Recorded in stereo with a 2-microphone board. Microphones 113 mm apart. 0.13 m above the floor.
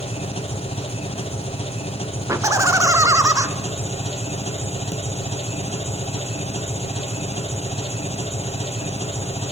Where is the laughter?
25° right (ahead or behind), 1.5 m.